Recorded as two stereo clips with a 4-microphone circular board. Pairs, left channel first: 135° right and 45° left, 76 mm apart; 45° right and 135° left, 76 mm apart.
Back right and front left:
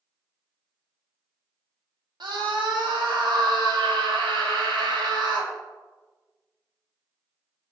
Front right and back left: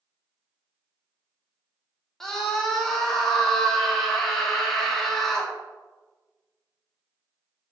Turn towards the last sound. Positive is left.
turn(degrees=40)